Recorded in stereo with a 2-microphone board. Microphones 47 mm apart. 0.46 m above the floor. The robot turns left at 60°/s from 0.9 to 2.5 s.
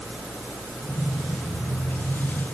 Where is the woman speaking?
I don't hear a woman speaking.